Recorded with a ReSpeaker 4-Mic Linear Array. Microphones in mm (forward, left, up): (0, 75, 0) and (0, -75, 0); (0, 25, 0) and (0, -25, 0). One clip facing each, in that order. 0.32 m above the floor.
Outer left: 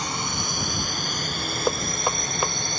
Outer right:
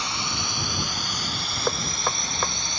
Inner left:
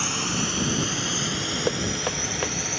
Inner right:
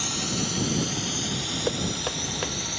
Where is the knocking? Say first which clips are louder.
Outer left 2 dB, inner left 2 dB; 15° left (ahead or behind).